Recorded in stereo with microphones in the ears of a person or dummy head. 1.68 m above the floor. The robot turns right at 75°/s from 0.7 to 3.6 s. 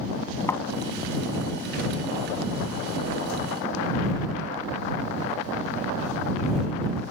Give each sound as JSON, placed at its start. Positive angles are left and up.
{"t": 0.5, "sound": "a thud", "side_deg": 15}